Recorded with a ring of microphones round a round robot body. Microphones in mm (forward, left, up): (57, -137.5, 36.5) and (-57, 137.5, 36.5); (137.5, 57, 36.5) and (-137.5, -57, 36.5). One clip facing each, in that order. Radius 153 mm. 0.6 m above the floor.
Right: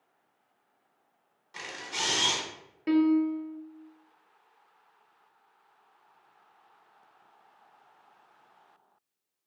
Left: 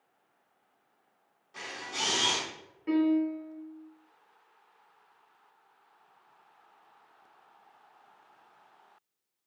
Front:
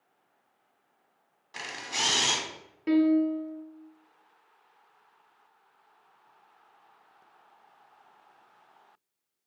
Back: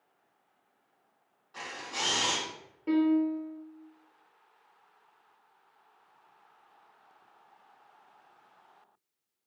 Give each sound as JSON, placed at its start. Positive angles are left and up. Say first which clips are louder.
{"t": 1.5, "sound": "a camera shutter", "louder": "even, front 1 dB", "azimuth_deg": 0, "distance_m": 0.7}
{"t": 2.9, "sound": "a piano", "louder": "right 3 dB, front 3 dB", "azimuth_deg": -30, "distance_m": 0.5}